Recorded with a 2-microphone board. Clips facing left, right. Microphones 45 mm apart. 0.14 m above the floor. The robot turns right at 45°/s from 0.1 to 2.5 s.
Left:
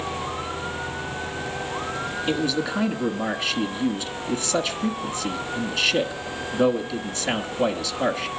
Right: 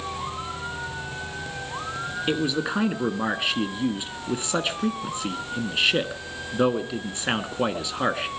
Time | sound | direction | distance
2.3 | a man speaking | 25° right (ahead or behind) | 1.3 m